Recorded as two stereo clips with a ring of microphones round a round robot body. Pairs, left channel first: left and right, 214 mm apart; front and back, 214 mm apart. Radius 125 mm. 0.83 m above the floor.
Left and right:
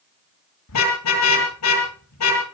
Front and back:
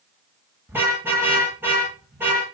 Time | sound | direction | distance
0.7 | a car horn | 100° left | 10 m